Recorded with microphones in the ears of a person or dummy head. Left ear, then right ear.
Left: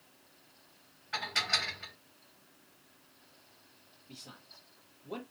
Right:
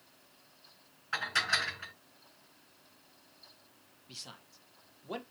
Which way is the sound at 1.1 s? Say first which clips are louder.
Right 1 dB; 60° right (ahead or behind).